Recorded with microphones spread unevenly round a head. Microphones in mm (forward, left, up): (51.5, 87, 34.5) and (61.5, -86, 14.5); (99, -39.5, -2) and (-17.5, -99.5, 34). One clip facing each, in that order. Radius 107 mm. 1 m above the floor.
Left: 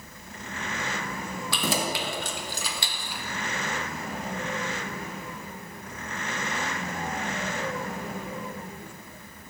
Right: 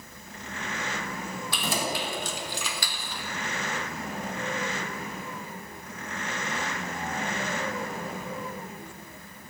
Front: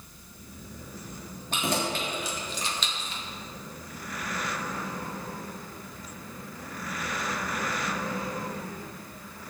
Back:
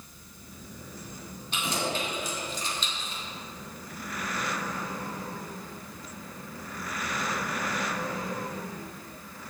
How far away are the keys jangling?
About 1.5 m.